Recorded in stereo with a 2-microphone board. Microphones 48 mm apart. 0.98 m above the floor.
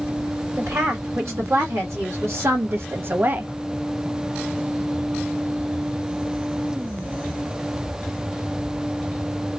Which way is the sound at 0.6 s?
80° right.